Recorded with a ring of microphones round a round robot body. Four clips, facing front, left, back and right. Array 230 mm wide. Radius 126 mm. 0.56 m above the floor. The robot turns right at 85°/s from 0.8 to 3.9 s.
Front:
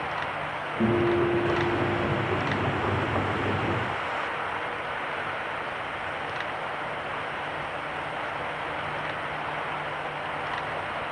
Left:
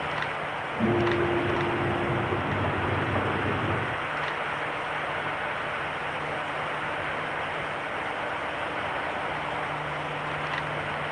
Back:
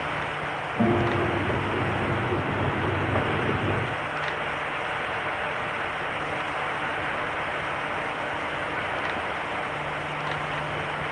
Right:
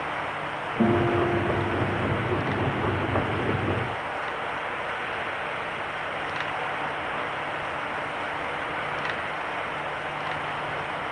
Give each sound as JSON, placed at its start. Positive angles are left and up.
{"t": 0.8, "sound": "a guitar", "azimuth_deg": -165, "distance_m": 2.5}